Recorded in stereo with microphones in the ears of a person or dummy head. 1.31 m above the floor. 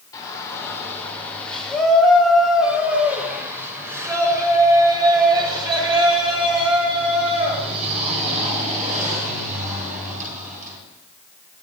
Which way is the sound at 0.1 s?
20° left (ahead or behind).